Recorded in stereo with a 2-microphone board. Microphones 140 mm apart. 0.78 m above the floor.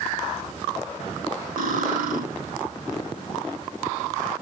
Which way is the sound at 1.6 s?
85° right.